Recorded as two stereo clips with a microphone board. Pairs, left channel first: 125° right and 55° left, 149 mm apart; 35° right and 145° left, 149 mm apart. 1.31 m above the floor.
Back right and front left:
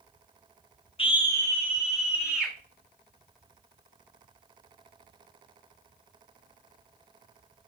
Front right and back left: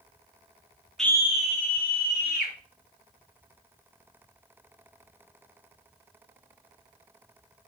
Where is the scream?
120° right, 0.5 m; by 2.5 s 30° right, 1.7 m.